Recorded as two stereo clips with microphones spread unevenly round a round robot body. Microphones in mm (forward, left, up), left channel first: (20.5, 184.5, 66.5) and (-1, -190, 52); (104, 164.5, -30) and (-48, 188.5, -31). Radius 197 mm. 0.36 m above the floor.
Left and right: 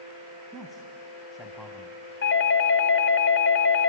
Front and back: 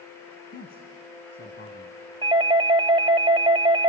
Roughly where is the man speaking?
Ahead.